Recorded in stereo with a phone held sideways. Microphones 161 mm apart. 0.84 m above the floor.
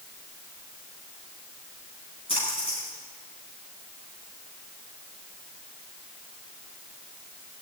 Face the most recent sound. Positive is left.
turn(degrees=35)  # may be behind; listen again after turning